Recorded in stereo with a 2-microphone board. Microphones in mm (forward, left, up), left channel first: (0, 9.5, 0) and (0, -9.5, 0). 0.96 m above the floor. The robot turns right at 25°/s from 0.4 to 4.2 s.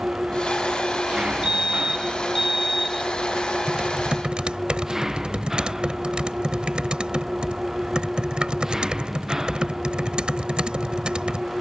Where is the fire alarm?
60° right; by 3.1 s 20° right.